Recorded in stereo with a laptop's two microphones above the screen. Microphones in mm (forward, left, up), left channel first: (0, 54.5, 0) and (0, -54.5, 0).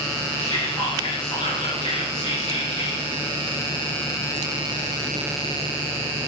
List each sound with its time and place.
0.4 s whispering: 70° left (ahead or behind), 1.9 m